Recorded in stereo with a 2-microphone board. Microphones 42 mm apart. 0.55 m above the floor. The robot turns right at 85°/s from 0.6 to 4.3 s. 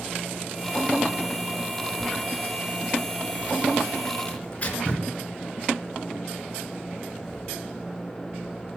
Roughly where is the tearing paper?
Left.